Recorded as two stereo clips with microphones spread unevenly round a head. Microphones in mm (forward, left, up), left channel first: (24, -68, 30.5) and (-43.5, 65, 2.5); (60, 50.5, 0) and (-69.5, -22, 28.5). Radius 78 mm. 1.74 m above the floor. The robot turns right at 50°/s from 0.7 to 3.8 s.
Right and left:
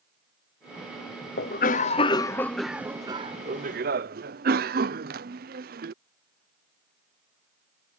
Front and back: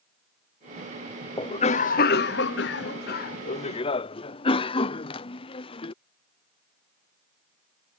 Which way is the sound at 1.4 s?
35° right.